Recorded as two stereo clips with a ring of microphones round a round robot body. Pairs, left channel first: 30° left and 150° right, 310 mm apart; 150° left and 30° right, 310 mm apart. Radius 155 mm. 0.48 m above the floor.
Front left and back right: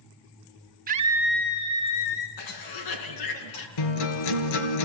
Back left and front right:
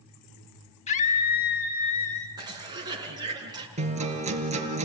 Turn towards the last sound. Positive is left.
turn(degrees=40)